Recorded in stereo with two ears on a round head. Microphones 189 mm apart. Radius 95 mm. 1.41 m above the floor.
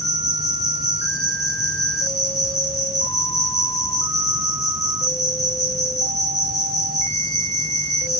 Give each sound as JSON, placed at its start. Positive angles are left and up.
{"t": 0.0, "sound": "an insect", "side_deg": 15, "distance_m": 3.5}